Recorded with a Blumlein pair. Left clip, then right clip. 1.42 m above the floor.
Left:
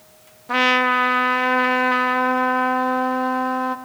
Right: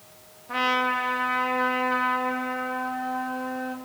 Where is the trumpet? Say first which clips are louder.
Left 7 dB; 60° left, 0.5 m.